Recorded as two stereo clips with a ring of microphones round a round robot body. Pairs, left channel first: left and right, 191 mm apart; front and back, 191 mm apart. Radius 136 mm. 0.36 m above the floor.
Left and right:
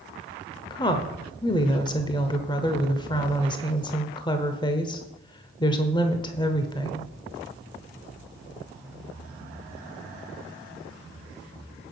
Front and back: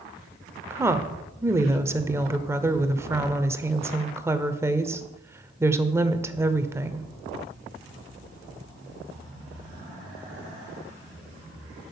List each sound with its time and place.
0.7 s a woman speaking: 125° left, 0.9 m